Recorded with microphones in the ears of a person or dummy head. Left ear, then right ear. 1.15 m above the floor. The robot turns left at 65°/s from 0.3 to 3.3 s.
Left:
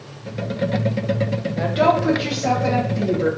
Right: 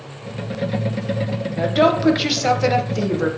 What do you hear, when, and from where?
1.6 s a woman speaking: 5° right, 0.5 m; by 3.3 s 115° right, 0.5 m